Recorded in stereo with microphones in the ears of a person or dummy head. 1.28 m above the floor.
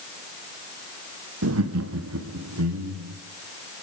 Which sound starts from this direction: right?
Laughter, at 1.4 s.